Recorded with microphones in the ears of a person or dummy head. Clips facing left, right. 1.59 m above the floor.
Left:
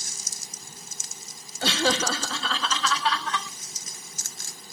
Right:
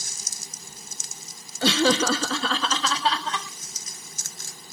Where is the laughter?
80° right, 0.9 m; by 3.5 s 20° right (ahead or behind), 1.8 m.